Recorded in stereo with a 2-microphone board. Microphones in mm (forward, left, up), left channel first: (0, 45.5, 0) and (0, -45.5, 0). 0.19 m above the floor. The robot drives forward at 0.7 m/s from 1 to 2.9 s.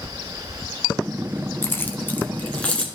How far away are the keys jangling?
About 0.8 m.